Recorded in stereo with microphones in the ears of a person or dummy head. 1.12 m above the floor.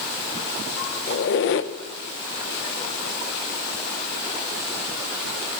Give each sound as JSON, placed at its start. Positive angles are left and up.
{"t": 1.1, "sound": "a squeak", "side_deg": 65, "distance_m": 0.8}